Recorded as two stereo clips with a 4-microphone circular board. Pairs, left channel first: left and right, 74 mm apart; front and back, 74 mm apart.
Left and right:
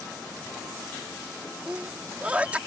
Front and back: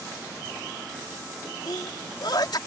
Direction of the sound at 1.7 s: 20° right.